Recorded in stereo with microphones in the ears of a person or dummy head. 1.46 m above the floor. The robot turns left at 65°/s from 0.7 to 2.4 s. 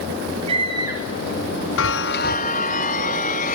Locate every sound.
0.5 s a scream: 30° right (ahead or behind), 8 m; by 1.1 s 5° right (ahead or behind), 8 m
1.8 s a chime: 95° left, 0.6 m; by 3.6 s 50° left, 0.6 m